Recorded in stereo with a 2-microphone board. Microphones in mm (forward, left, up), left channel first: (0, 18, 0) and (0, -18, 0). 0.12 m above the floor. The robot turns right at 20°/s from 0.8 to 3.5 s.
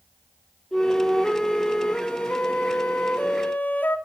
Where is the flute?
25° left, 1.1 m; by 4.0 s 80° left, 1.1 m.